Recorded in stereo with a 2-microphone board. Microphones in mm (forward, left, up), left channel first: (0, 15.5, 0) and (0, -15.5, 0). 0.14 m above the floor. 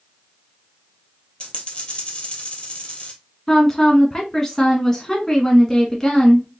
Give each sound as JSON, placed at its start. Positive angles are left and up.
{"t": 1.4, "sound": "a dropped coin", "side_deg": 35, "distance_m": 1.8}
{"t": 3.5, "sound": "a woman speaking", "side_deg": 15, "distance_m": 1.1}